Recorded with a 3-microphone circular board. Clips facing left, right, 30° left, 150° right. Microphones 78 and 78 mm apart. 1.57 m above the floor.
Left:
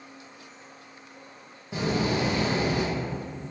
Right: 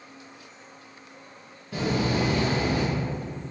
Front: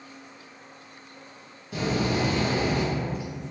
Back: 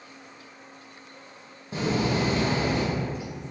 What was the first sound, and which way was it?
A door slam, 160° left.